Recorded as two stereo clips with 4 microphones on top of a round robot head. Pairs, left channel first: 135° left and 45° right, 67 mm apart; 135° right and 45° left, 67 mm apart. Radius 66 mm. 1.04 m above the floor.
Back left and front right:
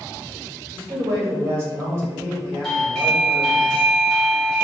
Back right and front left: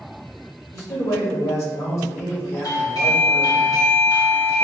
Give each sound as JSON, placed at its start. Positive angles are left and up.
{"t": 0.7, "sound": "a man speaking", "azimuth_deg": -95, "distance_m": 1.8}
{"t": 2.6, "sound": "a doorbell", "azimuth_deg": -130, "distance_m": 1.9}